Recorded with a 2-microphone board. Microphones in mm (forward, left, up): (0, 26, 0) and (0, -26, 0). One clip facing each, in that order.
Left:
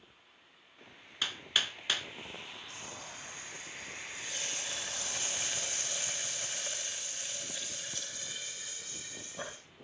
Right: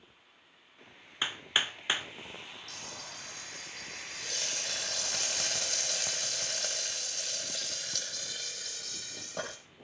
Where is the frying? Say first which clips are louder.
Even; 80° right, 9.5 m.